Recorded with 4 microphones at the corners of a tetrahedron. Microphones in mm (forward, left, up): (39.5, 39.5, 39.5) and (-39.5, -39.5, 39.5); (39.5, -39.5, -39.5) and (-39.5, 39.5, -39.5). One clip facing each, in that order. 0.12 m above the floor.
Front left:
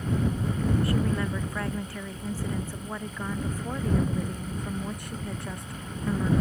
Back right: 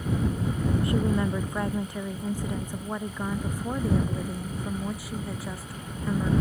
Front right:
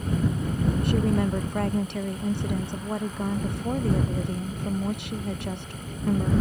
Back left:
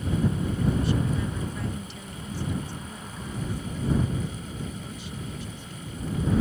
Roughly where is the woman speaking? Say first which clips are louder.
Back right 2 dB, front right 4 dB; ahead right.